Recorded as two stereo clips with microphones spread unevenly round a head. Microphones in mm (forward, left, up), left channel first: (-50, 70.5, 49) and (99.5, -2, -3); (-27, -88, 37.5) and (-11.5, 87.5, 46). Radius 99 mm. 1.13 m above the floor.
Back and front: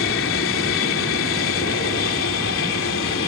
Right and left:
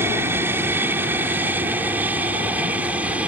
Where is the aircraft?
165° left; by 3.3 s 170° left.